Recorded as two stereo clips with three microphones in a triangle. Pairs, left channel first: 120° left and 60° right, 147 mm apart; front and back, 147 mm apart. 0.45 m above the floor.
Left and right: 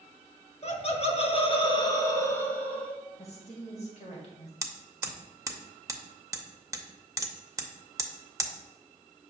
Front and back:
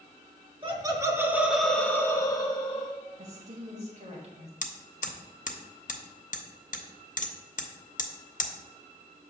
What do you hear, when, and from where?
0.6 s laughter: 140° left, 1.0 m; by 3.0 s 40° left, 1.2 m
3.2 s a woman speaking: 155° left, 2 m
4.6 s hammering: 10° left, 0.7 m